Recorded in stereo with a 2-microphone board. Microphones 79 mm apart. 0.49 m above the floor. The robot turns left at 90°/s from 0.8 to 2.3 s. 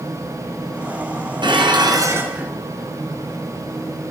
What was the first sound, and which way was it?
Dishes clattering, 80° right.